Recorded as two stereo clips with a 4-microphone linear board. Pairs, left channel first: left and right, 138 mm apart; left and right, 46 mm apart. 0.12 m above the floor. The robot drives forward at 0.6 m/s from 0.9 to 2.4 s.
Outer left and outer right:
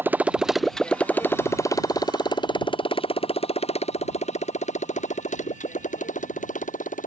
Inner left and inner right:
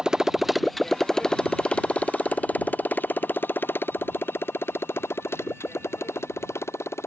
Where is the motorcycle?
15° right (ahead or behind); by 7.1 s 60° left (ahead or behind).